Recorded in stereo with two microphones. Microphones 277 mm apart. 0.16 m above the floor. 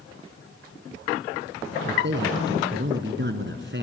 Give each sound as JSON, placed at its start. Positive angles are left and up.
{"t": 1.9, "sound": "a man speaking", "side_deg": -45, "distance_m": 1.6}